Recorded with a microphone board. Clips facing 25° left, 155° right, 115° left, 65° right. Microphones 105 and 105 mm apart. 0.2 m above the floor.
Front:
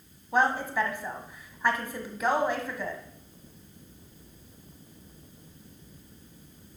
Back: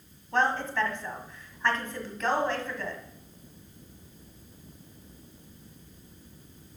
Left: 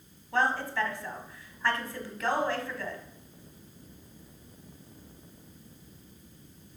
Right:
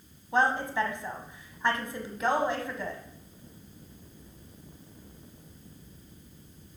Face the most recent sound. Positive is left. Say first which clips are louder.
# front 1 dB, right 2 dB
turn(degrees=-35)